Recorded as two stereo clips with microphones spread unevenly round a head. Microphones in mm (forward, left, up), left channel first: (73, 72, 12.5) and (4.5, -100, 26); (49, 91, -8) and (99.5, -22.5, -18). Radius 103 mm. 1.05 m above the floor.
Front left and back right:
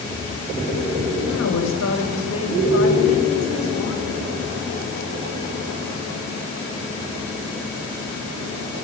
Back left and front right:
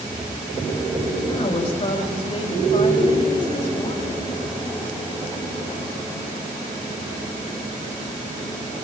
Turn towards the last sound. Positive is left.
turn(degrees=60)